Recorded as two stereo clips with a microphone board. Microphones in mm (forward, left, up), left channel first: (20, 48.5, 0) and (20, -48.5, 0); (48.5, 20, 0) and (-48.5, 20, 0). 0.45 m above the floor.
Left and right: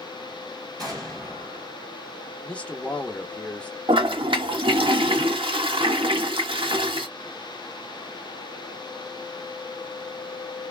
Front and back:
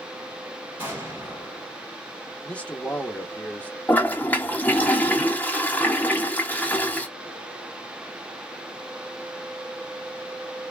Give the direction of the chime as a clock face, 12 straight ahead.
No chime in this recording.